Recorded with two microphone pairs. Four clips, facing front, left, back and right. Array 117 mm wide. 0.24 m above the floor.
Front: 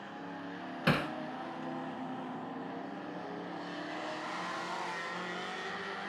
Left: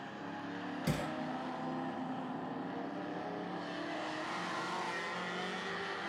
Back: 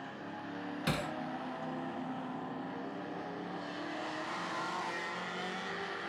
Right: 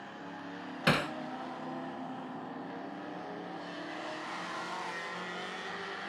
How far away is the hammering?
About 0.6 m.